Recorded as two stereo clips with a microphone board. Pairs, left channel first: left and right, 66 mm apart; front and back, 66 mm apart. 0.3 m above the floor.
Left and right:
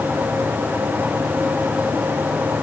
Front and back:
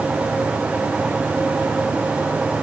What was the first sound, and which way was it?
Only background noise.